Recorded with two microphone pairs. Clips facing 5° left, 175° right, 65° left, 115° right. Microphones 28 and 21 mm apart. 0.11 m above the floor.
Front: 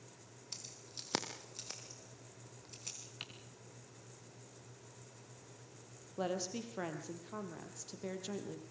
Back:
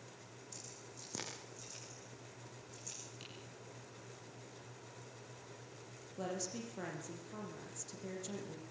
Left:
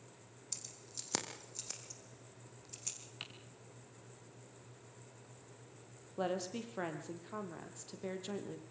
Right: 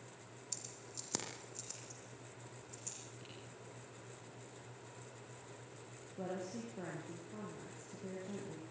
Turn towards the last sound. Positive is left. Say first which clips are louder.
# front 4 dB, left 5 dB
turn(degrees=65)